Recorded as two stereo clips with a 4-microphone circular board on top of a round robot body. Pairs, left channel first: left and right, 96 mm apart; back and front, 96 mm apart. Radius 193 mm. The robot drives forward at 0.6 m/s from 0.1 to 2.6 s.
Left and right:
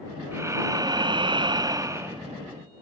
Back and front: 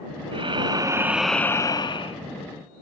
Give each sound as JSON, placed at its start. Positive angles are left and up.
{"t": 0.3, "sound": "breathing", "azimuth_deg": -25, "distance_m": 0.8}